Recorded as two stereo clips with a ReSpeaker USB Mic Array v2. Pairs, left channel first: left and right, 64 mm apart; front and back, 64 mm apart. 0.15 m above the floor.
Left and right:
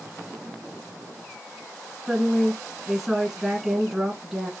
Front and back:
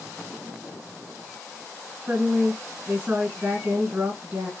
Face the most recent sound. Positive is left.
turn(degrees=-170)